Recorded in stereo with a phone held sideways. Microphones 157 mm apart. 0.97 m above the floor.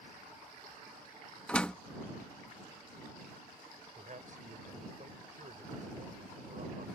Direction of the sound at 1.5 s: 5° left (ahead or behind).